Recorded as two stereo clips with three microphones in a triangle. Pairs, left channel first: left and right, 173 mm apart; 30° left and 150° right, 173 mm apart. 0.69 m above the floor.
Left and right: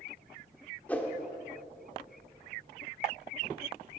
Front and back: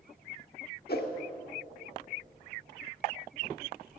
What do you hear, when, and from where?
0.9 s a whoosh: 10° left, 1.3 m